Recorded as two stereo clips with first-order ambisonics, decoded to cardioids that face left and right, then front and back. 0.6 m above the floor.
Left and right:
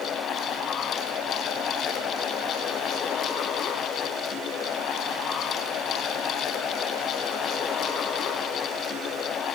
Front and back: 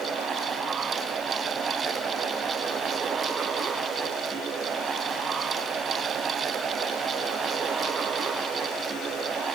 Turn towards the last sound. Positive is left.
No sound to turn to.